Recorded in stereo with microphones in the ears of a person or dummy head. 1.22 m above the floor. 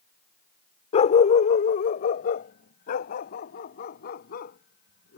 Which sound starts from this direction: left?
A dog barking, at 0.9 s.